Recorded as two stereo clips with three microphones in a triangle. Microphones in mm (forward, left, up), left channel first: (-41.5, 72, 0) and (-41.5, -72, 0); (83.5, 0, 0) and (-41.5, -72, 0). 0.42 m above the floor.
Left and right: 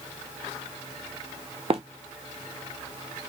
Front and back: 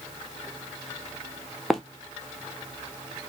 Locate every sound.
1.7 s running footsteps: 60° right, 0.7 m